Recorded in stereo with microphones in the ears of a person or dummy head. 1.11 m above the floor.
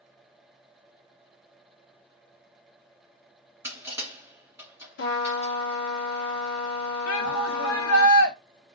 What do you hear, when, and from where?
3.6 s crushing: 10° right (ahead or behind), 2 m
5.0 s a trumpet: 75° left (ahead or behind), 1.2 m
7.1 s a shout: 90° left, 0.9 m